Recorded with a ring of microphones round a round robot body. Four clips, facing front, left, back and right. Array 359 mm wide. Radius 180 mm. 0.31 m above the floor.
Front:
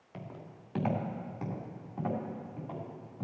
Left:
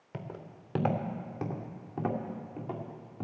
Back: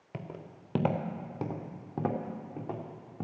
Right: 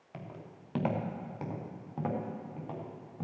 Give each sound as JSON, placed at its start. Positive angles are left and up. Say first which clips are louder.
{"t": 0.1, "sound": "footsteps", "louder": "left 3 dB, back 3 dB", "azimuth_deg": 150, "distance_m": 1.9}